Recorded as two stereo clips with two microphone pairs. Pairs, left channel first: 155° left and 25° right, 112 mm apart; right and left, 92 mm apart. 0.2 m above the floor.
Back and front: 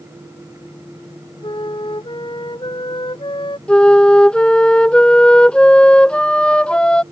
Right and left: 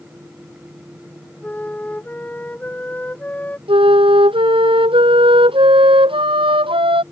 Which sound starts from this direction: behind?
A flute, at 1.4 s.